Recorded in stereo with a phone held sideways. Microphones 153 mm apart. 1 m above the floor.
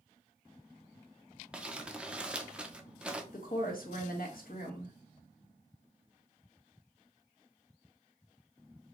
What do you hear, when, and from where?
1.5 s crumpling: 5° right (ahead or behind), 0.6 m
3.3 s a woman speaking: 70° left (ahead or behind), 1.7 m